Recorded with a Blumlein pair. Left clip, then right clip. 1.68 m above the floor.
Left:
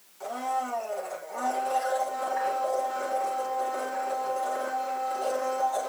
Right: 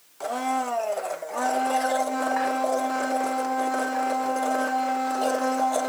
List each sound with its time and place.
0.2 s a blender: 30° right, 1.8 m